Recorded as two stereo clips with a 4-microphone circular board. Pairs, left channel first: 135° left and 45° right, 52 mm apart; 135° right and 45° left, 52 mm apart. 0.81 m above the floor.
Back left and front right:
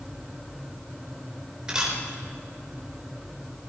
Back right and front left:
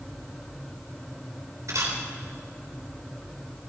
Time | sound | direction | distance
1.7 | a camera shutter | 30° left | 4 m